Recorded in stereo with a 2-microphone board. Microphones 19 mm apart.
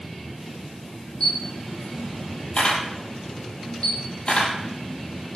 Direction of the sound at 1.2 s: 60° left (ahead or behind).